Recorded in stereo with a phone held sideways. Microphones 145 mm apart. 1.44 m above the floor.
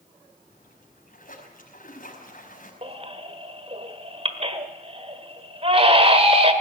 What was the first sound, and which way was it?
A splash, 70° left (ahead or behind).